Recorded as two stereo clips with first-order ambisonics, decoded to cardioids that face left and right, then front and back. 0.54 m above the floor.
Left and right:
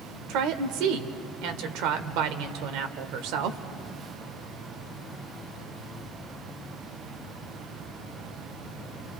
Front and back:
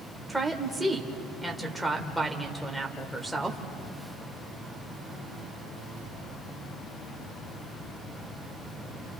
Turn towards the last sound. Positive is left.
turn(degrees=-90)